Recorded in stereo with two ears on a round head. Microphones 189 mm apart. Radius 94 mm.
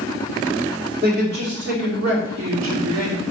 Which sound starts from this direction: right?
A man speaking, at 1.0 s.